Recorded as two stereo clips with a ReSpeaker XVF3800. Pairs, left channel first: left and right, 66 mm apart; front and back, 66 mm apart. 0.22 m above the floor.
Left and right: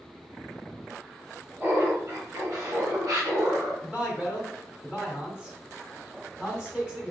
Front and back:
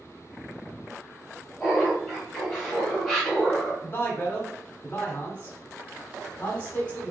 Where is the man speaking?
25° right, 1.0 m.